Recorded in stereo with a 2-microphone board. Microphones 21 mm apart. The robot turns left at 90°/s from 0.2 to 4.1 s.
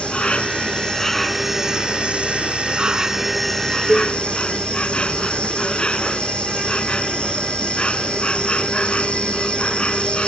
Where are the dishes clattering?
65° left (ahead or behind); by 4.2 s 45° left (ahead or behind).